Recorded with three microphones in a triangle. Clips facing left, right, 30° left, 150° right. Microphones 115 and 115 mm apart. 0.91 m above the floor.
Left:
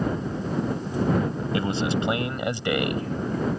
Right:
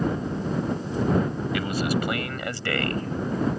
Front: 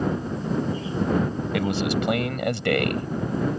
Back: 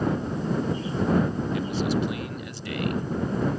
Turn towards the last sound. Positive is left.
turn(degrees=15)